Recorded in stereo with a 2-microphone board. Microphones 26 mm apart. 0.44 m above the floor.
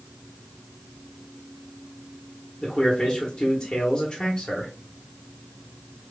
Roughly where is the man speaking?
Left.